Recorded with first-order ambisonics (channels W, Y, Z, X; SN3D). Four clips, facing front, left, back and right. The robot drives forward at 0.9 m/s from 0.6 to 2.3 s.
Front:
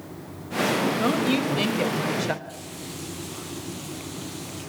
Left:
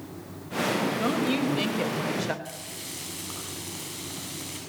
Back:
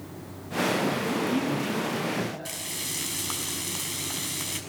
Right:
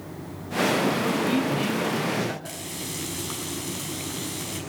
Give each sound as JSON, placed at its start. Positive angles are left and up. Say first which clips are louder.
{"t": 1.0, "sound": "a woman speaking", "louder": "right 2 dB, front 4 dB", "azimuth_deg": 15, "distance_m": 3.5}
{"t": 2.5, "sound": "frying", "louder": "right 4 dB, back 3 dB", "azimuth_deg": -165, "distance_m": 6.0}